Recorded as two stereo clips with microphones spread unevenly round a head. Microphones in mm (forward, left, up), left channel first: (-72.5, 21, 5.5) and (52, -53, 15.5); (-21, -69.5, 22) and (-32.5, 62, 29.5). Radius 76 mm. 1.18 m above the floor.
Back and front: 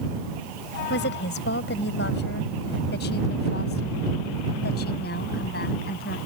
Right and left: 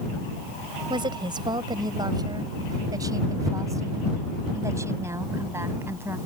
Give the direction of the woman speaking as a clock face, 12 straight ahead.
7 o'clock.